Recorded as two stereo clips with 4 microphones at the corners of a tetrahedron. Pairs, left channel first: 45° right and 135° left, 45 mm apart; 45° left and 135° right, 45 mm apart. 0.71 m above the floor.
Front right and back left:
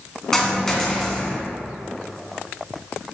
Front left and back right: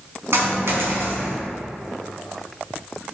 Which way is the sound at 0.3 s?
125° right.